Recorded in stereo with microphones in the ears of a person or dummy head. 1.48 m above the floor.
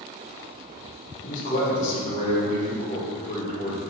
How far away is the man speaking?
About 1.9 m.